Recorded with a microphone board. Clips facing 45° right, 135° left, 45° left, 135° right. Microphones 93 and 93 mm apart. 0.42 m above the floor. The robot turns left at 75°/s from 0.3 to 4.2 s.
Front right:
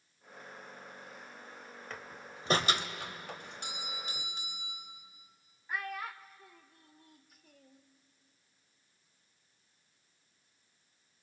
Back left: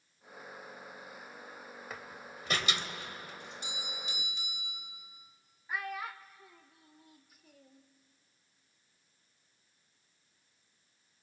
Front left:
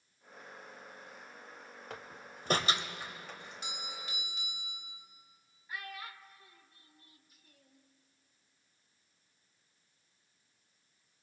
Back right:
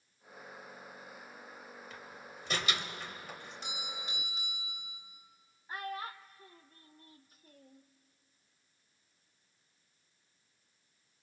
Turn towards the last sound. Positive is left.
turn(degrees=-140)